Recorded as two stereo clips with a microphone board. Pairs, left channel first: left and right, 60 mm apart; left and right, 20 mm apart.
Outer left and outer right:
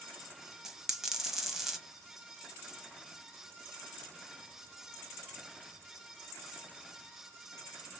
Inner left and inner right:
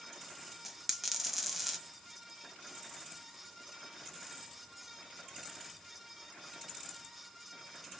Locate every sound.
0.7 s a dropped coin: 5° right (ahead or behind), 1.0 m